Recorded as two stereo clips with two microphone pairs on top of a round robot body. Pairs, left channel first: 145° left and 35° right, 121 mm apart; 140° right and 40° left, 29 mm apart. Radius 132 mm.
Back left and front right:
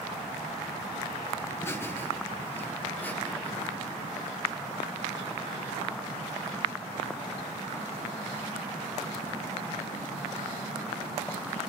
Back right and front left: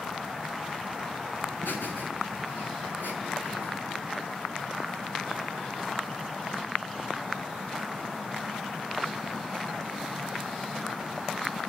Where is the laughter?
145° right, 5.5 m; by 3.7 s 140° right, 7 m.